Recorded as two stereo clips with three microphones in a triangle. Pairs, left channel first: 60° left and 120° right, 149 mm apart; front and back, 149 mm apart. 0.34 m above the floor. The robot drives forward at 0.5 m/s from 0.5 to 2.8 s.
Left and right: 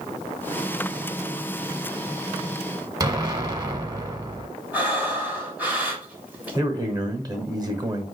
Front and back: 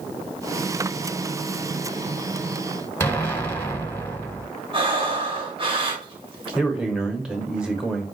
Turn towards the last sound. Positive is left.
turn(degrees=-105)